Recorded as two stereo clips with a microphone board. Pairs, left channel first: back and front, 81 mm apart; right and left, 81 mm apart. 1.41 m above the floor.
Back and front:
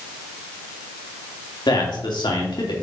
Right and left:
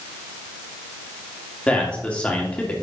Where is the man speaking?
165° right, 3 m.